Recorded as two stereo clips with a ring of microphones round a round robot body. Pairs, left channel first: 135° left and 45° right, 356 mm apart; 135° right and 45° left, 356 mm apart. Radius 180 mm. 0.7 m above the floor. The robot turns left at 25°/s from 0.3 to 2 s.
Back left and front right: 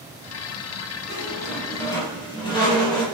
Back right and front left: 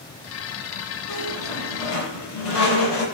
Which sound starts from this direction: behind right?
A squeak, at 1.1 s.